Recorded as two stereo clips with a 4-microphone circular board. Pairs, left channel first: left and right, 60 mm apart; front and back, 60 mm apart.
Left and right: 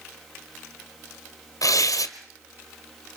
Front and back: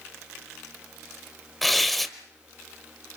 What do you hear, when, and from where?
1.6 s tearing paper: 90° left, 1.4 m